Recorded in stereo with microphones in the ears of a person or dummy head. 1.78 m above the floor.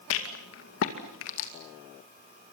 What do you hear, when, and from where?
0.1 s a rattle: 70° left (ahead or behind), 2.5 m